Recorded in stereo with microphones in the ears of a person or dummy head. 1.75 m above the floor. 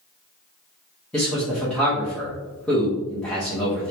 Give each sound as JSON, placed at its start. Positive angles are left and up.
{"t": 1.1, "sound": "a man speaking", "side_deg": 5, "distance_m": 0.8}